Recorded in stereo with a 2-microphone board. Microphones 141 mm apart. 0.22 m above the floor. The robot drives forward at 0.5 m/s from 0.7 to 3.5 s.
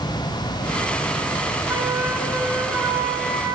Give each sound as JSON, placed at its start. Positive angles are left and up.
{"t": 1.7, "sound": "a flute", "side_deg": -20, "distance_m": 0.9}